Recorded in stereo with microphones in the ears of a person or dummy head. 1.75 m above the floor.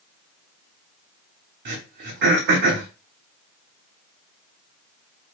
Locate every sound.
1.6 s throat clearing: 50° right (ahead or behind), 0.9 m